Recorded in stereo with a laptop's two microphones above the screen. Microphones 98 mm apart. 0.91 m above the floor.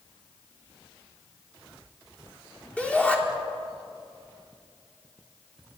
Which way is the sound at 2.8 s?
15° left (ahead or behind).